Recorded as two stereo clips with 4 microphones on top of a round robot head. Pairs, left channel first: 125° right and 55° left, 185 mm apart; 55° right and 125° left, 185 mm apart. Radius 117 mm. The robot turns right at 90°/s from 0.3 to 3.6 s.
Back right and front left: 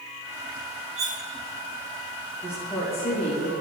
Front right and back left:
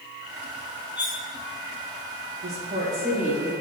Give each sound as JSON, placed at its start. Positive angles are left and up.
{"t": 1.0, "sound": "cutlery clinking", "azimuth_deg": 45, "distance_m": 0.5}
{"t": 2.4, "sound": "a woman speaking", "azimuth_deg": 135, "distance_m": 2.0}